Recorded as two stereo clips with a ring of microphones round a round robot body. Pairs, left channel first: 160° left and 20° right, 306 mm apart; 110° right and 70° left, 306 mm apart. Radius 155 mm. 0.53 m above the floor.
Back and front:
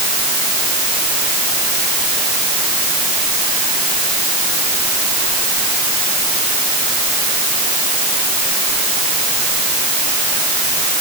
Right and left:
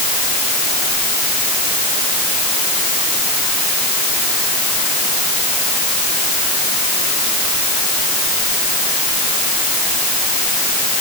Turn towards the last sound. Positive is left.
No sound to turn to.